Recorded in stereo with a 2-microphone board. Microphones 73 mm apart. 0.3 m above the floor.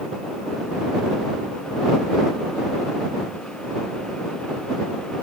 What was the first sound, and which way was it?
Only background noise.